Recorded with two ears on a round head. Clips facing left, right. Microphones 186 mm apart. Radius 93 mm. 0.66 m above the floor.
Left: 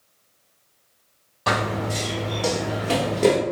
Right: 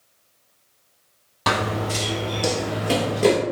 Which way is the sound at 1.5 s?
55° right (ahead or behind).